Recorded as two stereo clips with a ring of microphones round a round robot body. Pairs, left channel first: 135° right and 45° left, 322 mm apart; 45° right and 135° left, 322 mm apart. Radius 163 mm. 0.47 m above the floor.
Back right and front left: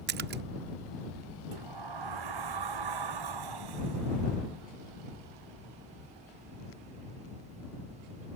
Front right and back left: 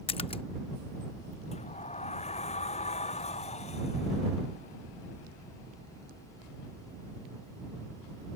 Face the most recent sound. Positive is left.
turn(degrees=25)